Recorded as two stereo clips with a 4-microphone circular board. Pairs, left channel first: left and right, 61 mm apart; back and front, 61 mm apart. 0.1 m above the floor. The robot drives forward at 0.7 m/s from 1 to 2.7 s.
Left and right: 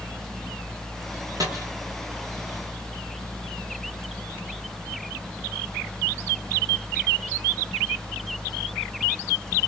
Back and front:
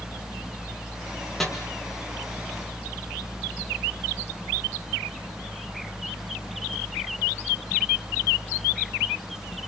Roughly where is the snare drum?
Right.